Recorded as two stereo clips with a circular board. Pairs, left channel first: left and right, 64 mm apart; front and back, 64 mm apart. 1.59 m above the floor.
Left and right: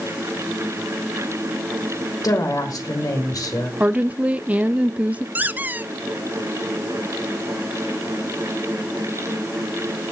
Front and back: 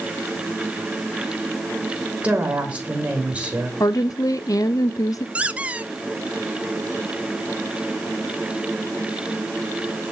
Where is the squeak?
130° right, 0.8 m.